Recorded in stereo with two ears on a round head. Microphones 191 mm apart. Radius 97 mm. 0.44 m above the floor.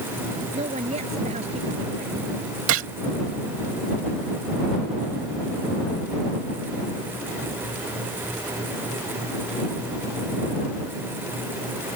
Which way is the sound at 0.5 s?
30° right (ahead or behind).